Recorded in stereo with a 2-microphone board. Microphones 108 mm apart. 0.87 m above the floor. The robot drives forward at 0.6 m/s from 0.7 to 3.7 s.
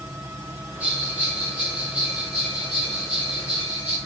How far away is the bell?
About 3.5 m.